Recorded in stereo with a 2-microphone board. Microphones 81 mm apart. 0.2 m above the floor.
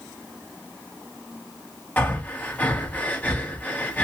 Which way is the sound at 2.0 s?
20° left (ahead or behind).